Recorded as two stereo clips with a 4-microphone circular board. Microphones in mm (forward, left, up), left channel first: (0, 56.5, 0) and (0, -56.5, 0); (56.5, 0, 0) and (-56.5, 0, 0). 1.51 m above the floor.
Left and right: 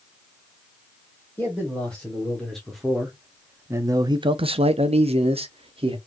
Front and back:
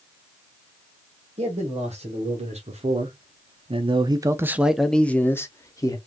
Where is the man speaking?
170° left, 1.6 m; by 6.0 s 55° right, 1.0 m.